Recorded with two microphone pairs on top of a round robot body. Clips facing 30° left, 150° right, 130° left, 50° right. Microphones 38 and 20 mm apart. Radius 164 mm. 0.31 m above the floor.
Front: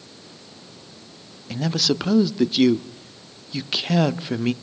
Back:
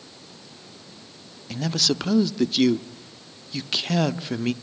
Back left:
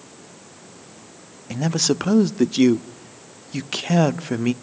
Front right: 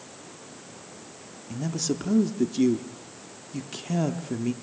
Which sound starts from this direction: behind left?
A man speaking, at 1.5 s.